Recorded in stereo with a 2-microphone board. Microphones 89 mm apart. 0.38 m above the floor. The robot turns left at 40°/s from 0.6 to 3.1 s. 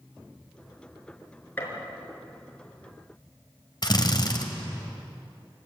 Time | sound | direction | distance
1.6 | a gunshot | 20° left (ahead or behind) | 5 m
3.8 | a drill | 50° left (ahead or behind) | 2 m